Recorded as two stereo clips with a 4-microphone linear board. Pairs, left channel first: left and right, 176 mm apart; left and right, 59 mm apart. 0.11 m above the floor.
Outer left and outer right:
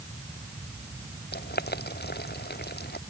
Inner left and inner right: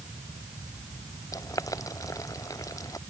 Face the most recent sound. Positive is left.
turn(degrees=70)  # may be behind; listen again after turning